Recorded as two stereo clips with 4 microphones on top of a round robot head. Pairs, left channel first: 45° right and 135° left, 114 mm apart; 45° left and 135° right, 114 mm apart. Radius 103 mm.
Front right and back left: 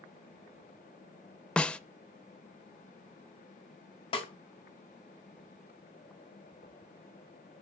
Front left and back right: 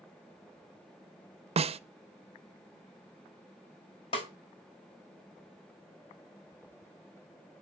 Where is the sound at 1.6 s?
125° right, 0.5 m.